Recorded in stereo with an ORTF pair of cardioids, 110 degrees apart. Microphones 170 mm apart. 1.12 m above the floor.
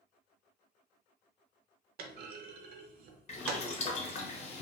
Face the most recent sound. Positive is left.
turn(degrees=40)